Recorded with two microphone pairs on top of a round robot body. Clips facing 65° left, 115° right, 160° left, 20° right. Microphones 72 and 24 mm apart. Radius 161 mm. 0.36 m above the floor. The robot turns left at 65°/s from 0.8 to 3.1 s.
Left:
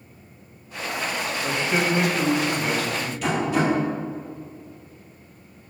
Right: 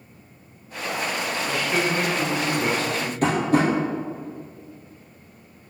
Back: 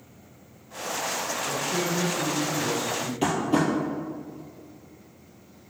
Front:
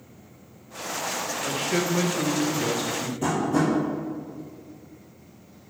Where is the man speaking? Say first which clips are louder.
Left 1 dB, front 4 dB; 10° left, 1.7 m; by 3.1 s 95° right, 1.7 m.